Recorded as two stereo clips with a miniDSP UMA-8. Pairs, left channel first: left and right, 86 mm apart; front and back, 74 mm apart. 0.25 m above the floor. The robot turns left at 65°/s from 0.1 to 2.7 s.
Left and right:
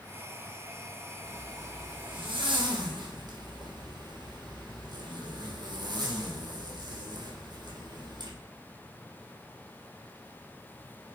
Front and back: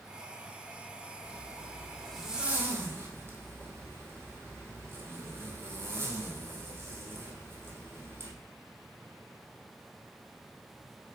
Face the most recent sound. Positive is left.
turn(degrees=-125)